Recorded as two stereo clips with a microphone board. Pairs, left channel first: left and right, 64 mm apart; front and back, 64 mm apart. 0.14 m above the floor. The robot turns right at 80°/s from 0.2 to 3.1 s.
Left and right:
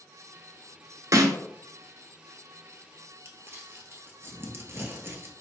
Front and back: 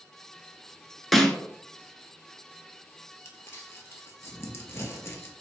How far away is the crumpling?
About 1.1 m.